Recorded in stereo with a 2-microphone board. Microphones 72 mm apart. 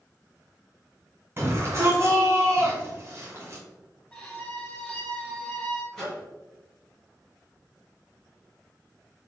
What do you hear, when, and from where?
1.4 s a shout: 30° right (ahead or behind), 1.9 m
4.1 s a violin: 15° left (ahead or behind), 1.8 m
5.9 s a microwave: 10° left (ahead or behind), 2 m